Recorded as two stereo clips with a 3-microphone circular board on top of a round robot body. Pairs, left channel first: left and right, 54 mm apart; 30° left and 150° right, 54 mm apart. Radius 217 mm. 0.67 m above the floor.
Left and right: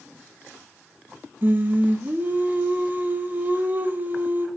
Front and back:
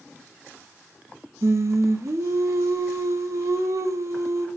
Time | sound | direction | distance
1.4 | singing | 140° right | 1.5 m